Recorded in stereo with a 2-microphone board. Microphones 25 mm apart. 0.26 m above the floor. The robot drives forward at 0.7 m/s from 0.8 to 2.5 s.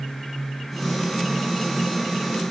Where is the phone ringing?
No phone ringing in this recording.